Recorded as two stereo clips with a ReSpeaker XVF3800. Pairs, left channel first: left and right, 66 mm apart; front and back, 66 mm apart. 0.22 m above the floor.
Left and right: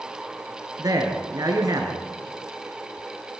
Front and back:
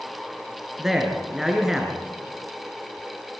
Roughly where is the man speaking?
Right.